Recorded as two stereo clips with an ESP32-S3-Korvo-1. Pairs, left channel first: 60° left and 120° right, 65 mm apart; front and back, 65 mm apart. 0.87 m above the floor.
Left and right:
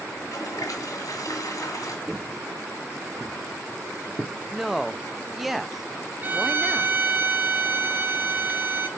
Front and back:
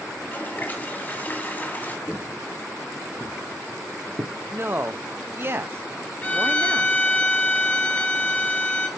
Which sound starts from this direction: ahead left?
A toilet flushing, at 0.1 s.